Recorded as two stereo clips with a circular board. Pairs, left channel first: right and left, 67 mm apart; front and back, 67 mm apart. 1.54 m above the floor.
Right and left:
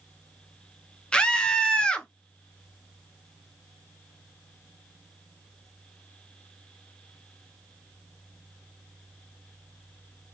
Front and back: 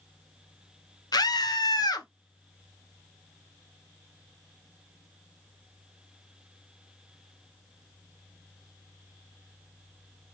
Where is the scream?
15° right, 0.8 m.